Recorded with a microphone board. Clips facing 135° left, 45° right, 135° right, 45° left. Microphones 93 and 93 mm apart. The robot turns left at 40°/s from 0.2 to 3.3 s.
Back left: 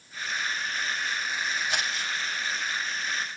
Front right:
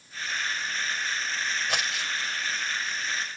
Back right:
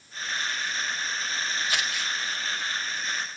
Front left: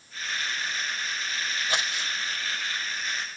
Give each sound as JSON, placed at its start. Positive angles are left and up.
{"t": 1.7, "sound": "crumpling", "azimuth_deg": -15, "distance_m": 4.5}